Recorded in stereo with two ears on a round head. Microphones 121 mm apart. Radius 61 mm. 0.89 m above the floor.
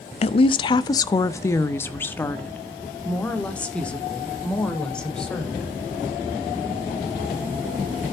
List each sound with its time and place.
0.2 s a woman speaking: 45° left (ahead or behind), 0.5 m; by 5.7 s 5° left (ahead or behind), 3 m